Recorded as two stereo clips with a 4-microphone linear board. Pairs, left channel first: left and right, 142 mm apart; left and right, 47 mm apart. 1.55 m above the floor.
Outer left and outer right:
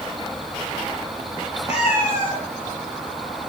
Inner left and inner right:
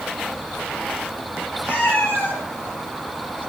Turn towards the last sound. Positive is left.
turn(degrees=15)  # may be behind; listen again after turning